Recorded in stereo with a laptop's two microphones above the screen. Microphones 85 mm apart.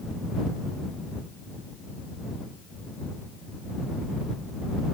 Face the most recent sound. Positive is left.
No sound to turn to.